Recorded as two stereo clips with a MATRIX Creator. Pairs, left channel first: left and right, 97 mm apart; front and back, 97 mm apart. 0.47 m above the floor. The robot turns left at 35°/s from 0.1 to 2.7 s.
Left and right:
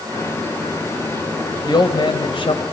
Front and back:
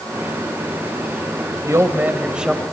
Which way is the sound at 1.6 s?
125° left.